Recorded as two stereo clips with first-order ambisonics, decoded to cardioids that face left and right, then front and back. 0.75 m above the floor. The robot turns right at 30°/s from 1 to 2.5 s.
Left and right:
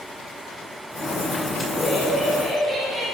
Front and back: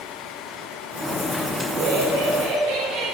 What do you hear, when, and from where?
1.7 s laughter: 175° left, 3 m; by 3.1 s 160° right, 3 m